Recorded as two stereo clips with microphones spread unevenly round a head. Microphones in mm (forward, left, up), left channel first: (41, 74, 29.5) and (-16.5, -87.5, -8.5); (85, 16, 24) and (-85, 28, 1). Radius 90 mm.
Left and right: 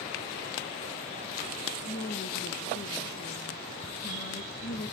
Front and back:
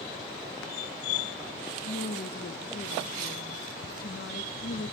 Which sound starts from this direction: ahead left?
A woman speaking, at 1.9 s.